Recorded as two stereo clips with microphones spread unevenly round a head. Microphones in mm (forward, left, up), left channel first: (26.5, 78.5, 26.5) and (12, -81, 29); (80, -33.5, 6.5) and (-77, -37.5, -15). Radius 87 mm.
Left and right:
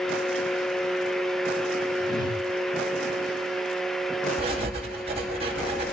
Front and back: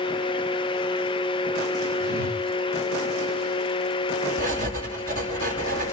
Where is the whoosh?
150° left, 2.0 m.